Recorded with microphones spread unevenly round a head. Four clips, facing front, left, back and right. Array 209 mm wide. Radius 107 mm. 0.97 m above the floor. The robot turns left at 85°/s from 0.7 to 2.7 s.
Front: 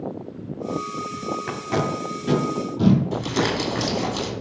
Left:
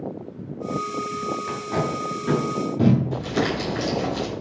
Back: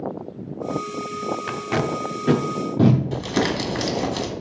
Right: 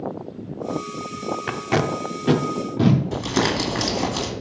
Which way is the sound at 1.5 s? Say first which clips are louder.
Right 6 dB, front 1 dB; 75° right.